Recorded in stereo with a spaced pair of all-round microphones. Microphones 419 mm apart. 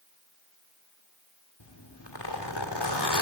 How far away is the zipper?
About 2 m.